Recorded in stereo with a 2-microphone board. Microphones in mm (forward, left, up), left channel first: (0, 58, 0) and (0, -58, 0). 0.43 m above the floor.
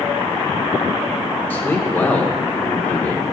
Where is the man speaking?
15° left (ahead or behind), 0.9 m.